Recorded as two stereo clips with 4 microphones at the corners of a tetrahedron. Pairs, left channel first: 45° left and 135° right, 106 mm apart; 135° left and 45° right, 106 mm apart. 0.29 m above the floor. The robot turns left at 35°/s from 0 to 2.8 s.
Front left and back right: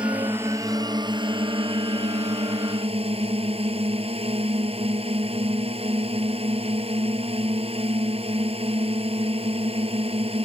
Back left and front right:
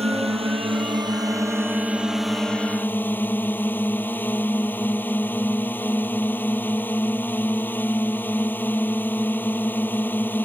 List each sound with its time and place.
0.0 s a drone: 55° right; by 10.5 s 150° right